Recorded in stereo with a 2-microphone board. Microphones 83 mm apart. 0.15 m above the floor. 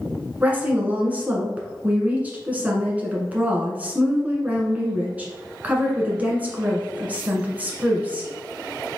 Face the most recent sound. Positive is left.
turn(degrees=-20)  # may be behind; listen again after turning